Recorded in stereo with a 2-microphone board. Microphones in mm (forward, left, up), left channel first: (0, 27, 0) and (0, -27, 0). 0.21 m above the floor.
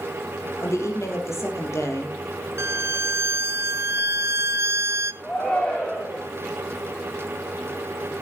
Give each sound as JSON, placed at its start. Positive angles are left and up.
{"t": 0.6, "sound": "a woman speaking", "side_deg": 65, "distance_m": 6.0}
{"t": 2.6, "sound": "a violin", "side_deg": -60, "distance_m": 0.5}
{"t": 5.2, "sound": "a shout", "side_deg": 25, "distance_m": 8.0}